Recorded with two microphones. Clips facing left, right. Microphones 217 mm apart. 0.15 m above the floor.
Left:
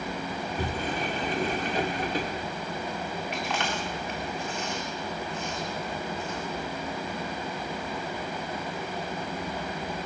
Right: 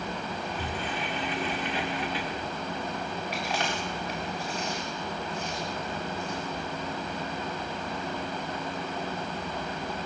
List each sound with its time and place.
0.4 s a sliding door: 40° left (ahead or behind), 1.8 m
3.3 s chewing: 35° right (ahead or behind), 7 m